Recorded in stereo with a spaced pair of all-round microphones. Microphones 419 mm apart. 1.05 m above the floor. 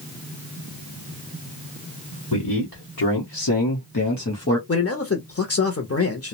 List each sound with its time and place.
2.3 s a man speaking: 50° left (ahead or behind), 1.1 m; by 4.6 s 30° left (ahead or behind), 0.9 m
4.7 s a man speaking: 35° left (ahead or behind), 0.5 m